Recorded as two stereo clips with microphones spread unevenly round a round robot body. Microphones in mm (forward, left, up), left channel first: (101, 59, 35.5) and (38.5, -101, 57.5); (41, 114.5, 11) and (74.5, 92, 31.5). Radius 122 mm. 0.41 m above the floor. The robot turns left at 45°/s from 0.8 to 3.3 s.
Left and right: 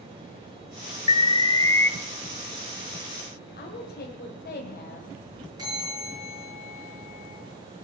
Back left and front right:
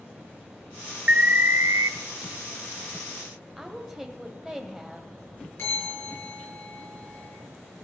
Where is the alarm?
30° left, 0.7 m; by 1.9 s 5° right, 0.7 m.